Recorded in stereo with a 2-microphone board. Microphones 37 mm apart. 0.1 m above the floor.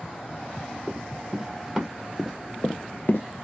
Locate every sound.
0.9 s running footsteps: 15° right (ahead or behind), 2 m; by 3.5 s 85° left, 0.6 m